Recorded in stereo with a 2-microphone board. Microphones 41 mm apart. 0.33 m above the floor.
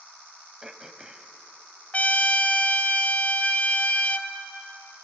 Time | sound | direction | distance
0.6 | throat clearing | 15° right (ahead or behind) | 1.0 m
1.9 | a trumpet | 40° left (ahead or behind) | 0.9 m